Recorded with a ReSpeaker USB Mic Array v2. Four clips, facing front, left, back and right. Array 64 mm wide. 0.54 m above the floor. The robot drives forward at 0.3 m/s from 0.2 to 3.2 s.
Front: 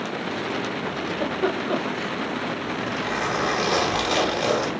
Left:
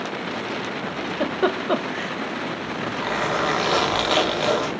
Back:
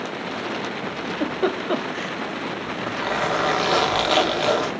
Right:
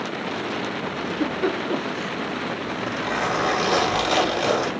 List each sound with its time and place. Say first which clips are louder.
1.0 s a giggle: left 2 dB, back 2 dB; 85° left, 0.5 m; by 2.1 s 120° left, 0.6 m
2.6 s a zipper: even, back 1 dB; 130° left, 1.1 m; by 4.7 s 145° left, 1.2 m